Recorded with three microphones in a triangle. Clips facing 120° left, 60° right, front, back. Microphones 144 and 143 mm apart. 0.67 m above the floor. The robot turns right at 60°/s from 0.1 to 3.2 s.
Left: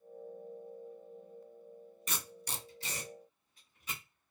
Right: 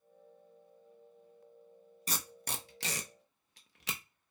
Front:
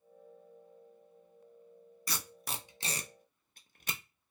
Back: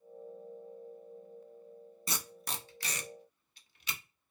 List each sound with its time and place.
2.1 s tape being pulled: 115° right, 0.6 m; by 4.0 s 45° right, 0.6 m